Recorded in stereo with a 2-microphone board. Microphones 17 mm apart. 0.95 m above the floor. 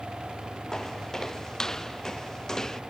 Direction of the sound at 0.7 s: 30° left (ahead or behind).